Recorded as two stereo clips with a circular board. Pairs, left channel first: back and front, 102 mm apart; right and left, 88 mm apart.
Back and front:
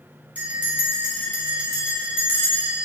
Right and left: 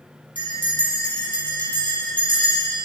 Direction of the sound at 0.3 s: 75° left.